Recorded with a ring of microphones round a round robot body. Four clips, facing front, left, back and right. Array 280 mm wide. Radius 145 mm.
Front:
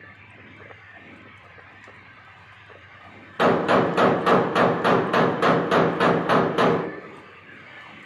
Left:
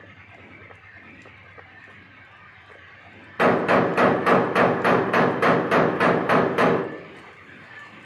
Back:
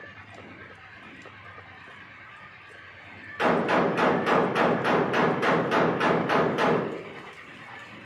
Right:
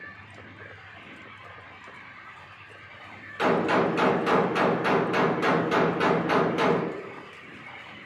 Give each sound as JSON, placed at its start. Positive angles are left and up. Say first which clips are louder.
{"t": 3.4, "sound": "a gunshot", "louder": "left 4 dB, front 4 dB", "azimuth_deg": 45, "distance_m": 1.0}